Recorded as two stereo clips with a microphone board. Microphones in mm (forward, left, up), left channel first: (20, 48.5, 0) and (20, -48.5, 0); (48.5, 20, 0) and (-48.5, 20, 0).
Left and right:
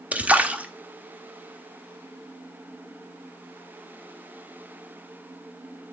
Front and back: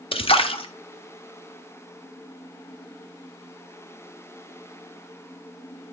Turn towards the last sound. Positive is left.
turn(degrees=-15)